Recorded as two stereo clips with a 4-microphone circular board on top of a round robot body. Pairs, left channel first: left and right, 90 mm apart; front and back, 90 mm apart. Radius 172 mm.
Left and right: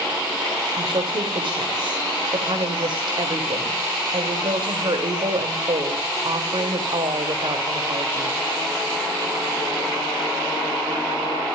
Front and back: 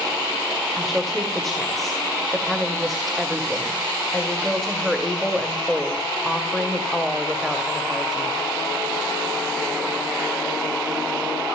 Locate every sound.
0.8 s a woman speaking: 90° right, 2.5 m